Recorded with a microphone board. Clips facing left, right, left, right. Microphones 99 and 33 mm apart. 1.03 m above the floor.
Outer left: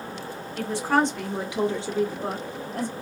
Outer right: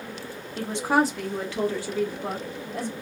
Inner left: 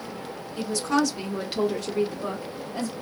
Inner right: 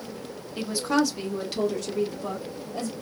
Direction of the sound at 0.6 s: 30° right (ahead or behind).